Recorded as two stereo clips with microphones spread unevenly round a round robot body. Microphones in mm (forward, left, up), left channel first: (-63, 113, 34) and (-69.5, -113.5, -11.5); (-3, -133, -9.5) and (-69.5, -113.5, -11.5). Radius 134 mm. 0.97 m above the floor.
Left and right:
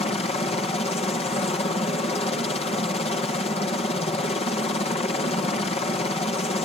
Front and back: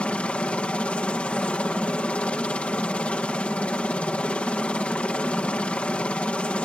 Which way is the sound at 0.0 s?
30° left.